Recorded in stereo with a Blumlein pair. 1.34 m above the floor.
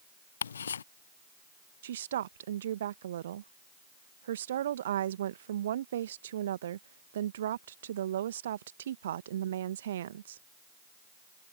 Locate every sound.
0.4 s ticking: 70° left
1.8 s a woman speaking: 60° right